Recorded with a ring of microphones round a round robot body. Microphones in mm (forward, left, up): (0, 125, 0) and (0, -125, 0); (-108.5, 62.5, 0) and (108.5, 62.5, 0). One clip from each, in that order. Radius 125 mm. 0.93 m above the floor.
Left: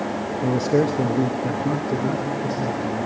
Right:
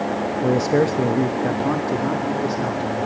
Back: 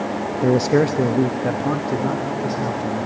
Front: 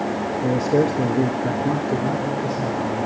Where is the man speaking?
Straight behind, 0.7 m; by 3.1 s 120° right, 2.5 m.